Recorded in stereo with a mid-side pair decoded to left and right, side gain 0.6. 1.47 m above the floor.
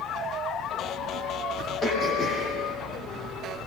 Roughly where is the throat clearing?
Ahead left.